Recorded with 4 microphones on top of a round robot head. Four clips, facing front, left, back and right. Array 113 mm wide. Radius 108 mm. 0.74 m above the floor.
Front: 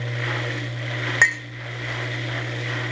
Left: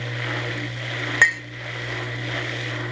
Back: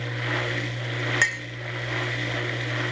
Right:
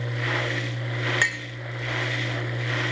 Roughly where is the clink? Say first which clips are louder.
Left 11 dB, front 8 dB; ahead left.